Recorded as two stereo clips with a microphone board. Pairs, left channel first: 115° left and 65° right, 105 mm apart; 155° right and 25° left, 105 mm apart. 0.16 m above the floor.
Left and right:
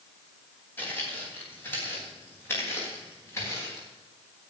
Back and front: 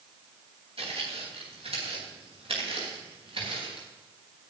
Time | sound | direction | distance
0.8 | footsteps | 40° left | 9 m